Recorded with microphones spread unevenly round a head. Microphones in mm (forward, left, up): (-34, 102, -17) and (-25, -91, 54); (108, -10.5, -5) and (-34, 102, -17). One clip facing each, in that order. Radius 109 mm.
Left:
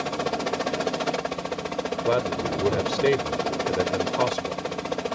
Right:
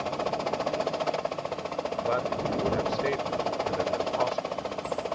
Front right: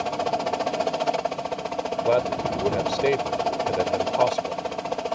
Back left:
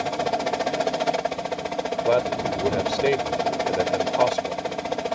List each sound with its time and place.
0.0 s a helicopter: 65° left
2.0 s a man speaking: 50° left